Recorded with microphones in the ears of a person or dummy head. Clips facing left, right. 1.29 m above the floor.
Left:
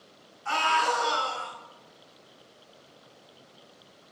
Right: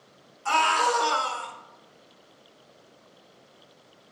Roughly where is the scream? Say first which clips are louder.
Right 3 dB; right.